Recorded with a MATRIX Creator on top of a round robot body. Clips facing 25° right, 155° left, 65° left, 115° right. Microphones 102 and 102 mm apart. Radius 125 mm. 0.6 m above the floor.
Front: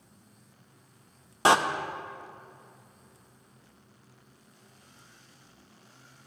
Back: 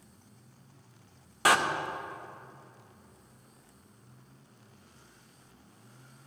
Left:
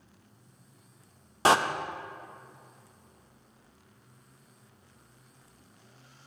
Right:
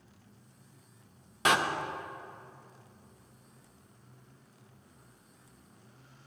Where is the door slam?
30° left, 0.6 m.